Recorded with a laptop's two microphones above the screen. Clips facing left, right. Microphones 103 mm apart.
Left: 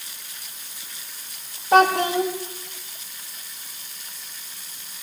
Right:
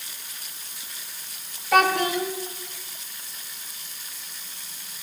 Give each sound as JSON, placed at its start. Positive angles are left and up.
{"t": 1.7, "sound": "a child speaking", "side_deg": 30, "distance_m": 0.8}